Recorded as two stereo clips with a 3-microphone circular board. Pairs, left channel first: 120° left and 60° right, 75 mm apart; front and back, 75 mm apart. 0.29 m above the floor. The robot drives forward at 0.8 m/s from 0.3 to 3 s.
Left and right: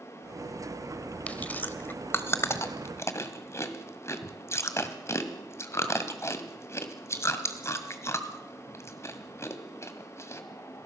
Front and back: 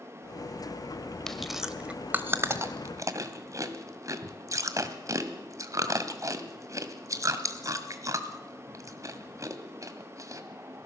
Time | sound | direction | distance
1.3 | chewing | 75° left | 1.3 m